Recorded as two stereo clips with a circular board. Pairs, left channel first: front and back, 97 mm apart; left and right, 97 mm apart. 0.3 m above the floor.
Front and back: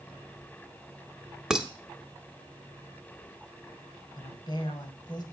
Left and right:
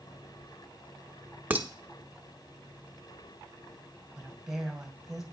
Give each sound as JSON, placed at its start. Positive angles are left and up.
{"t": 1.5, "sound": "dishes clattering", "azimuth_deg": -105, "distance_m": 0.8}
{"t": 4.2, "sound": "a woman speaking", "azimuth_deg": -5, "distance_m": 1.9}